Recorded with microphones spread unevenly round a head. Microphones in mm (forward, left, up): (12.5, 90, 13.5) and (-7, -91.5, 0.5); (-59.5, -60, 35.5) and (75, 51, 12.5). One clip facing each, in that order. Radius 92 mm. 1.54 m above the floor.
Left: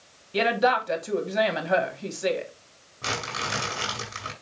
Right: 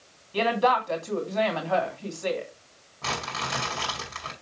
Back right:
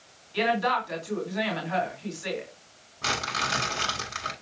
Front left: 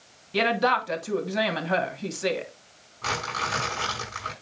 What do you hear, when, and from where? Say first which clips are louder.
0.3 s a woman speaking: left 1 dB, front left 2 dB; 15° left, 2.5 m
3.0 s crumpling: left 1 dB, front left 1 dB; 160° left, 5.5 m